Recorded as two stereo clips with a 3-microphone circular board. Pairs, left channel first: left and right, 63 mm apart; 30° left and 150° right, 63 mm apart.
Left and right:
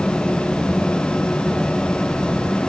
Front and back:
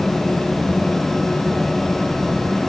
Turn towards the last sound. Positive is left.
No sound to turn to.